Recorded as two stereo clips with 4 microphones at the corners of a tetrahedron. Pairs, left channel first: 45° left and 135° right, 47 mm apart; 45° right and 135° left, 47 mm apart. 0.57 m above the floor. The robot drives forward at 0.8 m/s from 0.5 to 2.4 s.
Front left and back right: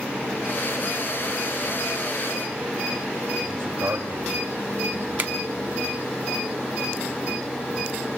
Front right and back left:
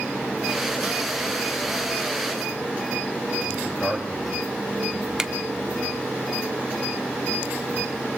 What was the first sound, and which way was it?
A man speaking, 120° right.